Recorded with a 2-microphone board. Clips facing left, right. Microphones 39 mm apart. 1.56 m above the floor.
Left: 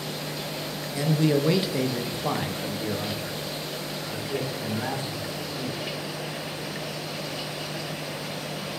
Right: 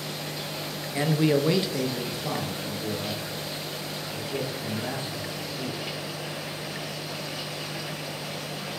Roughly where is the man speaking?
Right.